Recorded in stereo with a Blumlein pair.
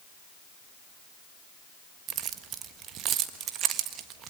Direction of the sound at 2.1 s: 30° right.